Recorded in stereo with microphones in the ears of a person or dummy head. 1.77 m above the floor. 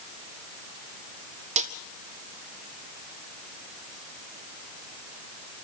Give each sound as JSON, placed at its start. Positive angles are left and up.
{"t": 1.6, "sound": "a snare drum", "side_deg": -45, "distance_m": 1.4}